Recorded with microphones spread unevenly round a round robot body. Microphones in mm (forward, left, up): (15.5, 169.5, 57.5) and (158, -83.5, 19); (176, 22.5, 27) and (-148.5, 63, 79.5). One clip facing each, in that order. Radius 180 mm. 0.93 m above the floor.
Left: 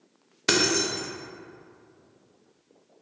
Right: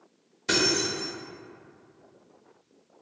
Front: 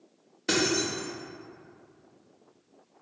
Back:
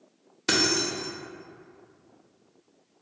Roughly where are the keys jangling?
Left.